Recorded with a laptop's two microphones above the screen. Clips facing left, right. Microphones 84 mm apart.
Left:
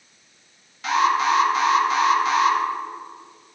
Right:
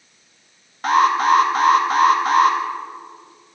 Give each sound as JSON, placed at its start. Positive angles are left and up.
{"t": 0.8, "sound": "an alarm", "side_deg": -45, "distance_m": 1.4}